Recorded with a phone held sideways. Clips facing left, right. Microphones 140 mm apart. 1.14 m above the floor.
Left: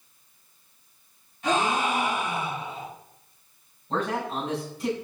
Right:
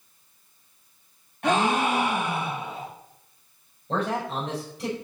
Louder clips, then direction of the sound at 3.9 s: Right 1 dB; 70° right (ahead or behind).